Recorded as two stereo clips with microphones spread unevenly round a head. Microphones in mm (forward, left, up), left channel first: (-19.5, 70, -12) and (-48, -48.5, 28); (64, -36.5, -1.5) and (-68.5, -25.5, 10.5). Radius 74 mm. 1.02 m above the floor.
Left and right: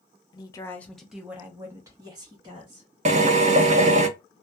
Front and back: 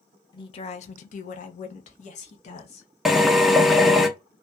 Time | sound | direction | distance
0.3 | a woman speaking | 50° left | 0.5 m
3.0 | a drill | 90° right | 0.5 m